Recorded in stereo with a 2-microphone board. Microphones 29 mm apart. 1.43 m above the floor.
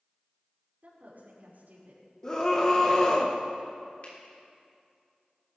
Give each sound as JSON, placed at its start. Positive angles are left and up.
{"t": 0.8, "sound": "a woman speaking", "side_deg": -80, "distance_m": 5.0}
{"t": 2.2, "sound": "a scream", "side_deg": 20, "distance_m": 1.2}
{"t": 4.0, "sound": "a finger snap", "side_deg": 50, "distance_m": 3.5}